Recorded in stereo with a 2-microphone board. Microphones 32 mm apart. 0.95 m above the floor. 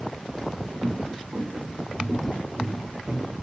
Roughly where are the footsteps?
Right.